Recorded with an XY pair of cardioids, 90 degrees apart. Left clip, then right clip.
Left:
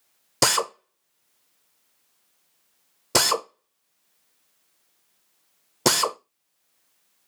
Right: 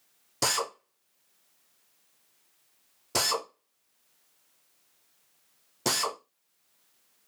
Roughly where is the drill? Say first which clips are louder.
Left 7 dB; left.